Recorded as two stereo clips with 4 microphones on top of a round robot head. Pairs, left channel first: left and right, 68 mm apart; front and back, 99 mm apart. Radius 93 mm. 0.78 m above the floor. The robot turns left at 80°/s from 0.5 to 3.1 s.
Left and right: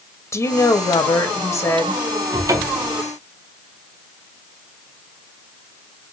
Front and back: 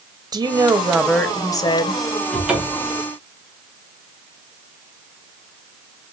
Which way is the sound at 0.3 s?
130° left.